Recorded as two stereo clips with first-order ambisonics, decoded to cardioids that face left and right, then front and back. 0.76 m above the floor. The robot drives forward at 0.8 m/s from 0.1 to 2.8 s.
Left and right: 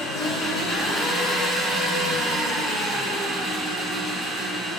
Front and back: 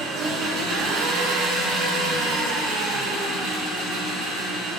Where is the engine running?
125° left, 1.6 m; by 4.8 s 155° left, 3.5 m.